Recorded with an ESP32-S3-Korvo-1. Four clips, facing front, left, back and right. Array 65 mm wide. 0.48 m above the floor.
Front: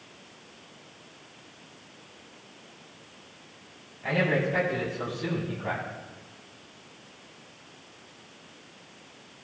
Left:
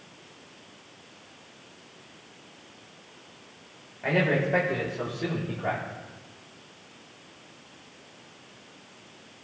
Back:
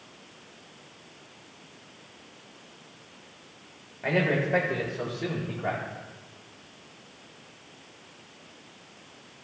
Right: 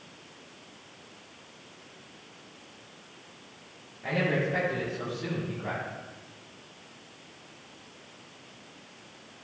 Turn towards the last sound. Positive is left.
turn(degrees=135)